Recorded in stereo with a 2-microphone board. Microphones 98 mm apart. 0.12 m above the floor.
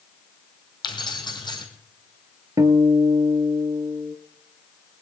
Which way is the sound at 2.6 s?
35° right (ahead or behind).